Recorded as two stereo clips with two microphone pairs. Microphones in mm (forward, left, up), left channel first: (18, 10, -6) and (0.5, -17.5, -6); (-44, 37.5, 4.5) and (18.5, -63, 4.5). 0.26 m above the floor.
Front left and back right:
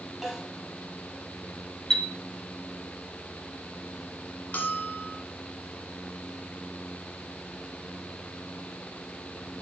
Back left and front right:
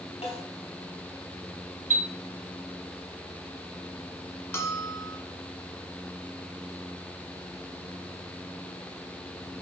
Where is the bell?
55° left, 1.2 m.